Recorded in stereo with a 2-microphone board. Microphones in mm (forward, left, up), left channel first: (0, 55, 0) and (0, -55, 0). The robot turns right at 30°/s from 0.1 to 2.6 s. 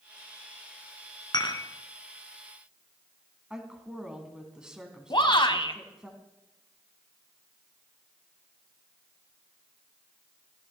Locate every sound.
1.3 s dishes clattering: 40° left (ahead or behind), 2.0 m; by 1.6 s 50° left (ahead or behind), 2.0 m
3.5 s a woman speaking: 10° right (ahead or behind), 2.5 m
5.1 s a shout: 50° left (ahead or behind), 1.5 m